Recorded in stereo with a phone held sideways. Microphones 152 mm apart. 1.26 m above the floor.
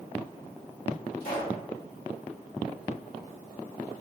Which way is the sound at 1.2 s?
65° left (ahead or behind).